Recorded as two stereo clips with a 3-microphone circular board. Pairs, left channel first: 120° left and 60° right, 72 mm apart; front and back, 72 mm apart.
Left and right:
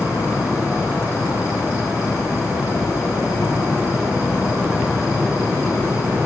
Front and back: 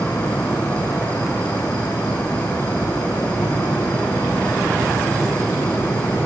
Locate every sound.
0.0 s an insect: 70° left, 7.5 m